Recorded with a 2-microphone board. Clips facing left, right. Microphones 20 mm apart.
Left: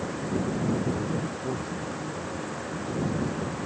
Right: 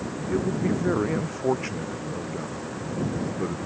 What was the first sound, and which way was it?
A man speaking, 50° right (ahead or behind).